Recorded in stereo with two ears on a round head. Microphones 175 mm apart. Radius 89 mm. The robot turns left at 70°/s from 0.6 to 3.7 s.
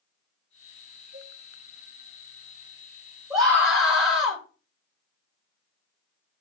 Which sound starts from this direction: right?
A cowbell, at 1.1 s.